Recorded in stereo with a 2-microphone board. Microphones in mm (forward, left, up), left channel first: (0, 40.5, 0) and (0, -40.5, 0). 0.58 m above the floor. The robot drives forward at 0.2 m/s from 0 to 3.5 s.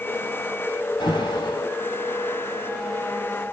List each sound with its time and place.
1.0 s an alarm: 75° left (ahead or behind), 2 m; by 1.7 s 70° left (ahead or behind), 2 m